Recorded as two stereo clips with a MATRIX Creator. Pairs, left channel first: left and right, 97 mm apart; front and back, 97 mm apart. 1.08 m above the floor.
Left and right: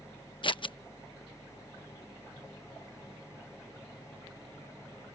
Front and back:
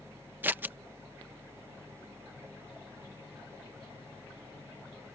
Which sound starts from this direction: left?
Scissors, at 0.4 s.